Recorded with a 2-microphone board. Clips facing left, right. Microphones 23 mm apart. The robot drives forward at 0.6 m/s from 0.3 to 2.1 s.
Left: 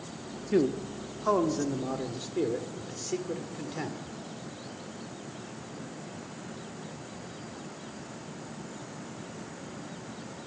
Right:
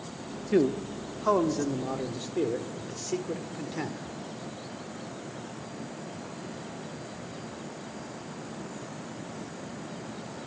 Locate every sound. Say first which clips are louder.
0.5 s a man speaking: right 2 dB; 10° right (ahead or behind), 1.0 m; by 4.0 s 5° right (ahead or behind), 1.9 m